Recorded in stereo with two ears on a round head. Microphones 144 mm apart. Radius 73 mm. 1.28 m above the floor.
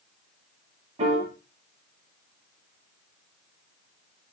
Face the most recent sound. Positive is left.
turn(degrees=-45)  # may be behind; listen again after turning